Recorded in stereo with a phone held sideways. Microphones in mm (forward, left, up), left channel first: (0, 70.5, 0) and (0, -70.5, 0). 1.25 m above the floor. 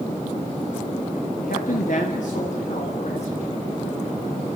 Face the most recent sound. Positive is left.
turn(degrees=55)  # may be behind; listen again after turning